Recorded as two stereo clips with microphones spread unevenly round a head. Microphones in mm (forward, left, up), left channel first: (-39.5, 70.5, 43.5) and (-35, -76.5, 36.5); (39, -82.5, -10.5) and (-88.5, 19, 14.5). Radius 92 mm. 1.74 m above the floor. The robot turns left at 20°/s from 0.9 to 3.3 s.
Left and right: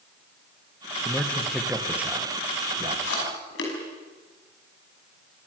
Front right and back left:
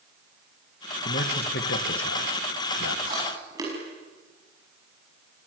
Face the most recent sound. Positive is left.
turn(degrees=70)